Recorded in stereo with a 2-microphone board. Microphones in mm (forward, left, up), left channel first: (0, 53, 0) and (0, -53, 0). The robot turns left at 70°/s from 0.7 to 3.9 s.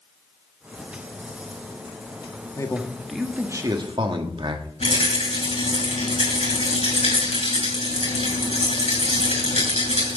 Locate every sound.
2.6 s a man speaking: 40° left, 1.4 m; by 4.7 s 55° right, 1.4 m
4.8 s a rattle: 85° left, 6 m